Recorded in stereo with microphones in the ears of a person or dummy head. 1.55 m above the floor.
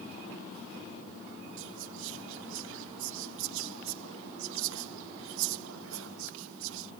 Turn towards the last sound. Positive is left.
turn(degrees=-75)  # may be behind; listen again after turning